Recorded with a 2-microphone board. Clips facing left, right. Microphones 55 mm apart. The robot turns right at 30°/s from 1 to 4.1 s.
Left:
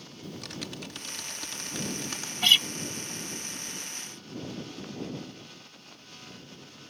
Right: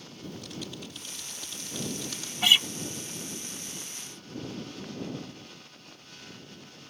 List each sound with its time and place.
0.2 s typing on a keyboard: 95° left; by 2.3 s 135° left
2.4 s a guitar: 10° right (ahead or behind); by 2.7 s 15° right (ahead or behind)